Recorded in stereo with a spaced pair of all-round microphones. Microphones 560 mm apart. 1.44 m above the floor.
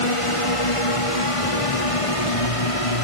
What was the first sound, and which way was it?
A drone, 60° left (ahead or behind).